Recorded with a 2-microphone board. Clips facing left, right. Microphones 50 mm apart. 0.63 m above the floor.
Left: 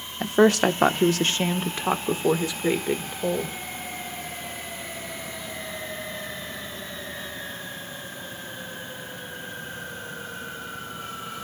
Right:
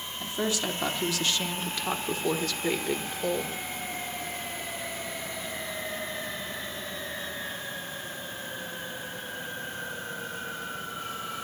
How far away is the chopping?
No chopping in this recording.